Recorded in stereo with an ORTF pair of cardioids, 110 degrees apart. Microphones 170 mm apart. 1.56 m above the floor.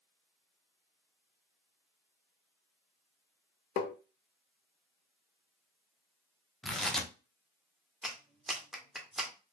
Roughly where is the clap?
Ahead.